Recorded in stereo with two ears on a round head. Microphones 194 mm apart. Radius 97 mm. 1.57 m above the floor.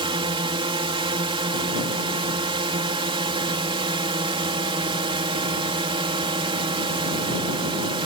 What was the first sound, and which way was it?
A drone, 25° right (ahead or behind).